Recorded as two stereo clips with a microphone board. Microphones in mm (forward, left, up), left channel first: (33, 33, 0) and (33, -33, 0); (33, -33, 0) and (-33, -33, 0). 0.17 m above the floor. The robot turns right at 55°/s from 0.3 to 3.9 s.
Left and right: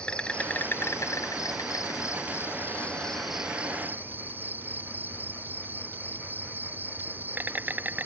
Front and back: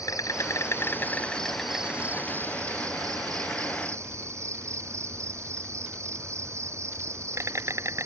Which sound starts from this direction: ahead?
An insect, at 0.0 s.